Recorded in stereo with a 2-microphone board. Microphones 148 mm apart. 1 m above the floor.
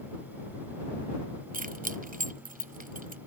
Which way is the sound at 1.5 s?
65° right (ahead or behind).